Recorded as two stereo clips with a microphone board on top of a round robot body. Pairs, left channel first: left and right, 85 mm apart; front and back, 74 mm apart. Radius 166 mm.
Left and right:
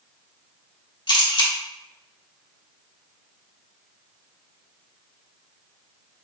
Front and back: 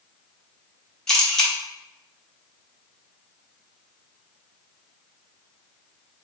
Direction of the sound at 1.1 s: 80° left.